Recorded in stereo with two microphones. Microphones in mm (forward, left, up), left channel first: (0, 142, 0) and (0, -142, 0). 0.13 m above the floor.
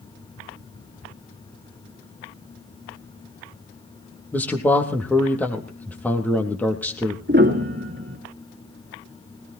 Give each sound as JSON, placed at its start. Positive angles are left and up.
{"t": 4.3, "sound": "a man speaking", "side_deg": 5, "distance_m": 3.5}
{"t": 7.3, "sound": "a piano", "side_deg": -40, "distance_m": 2.0}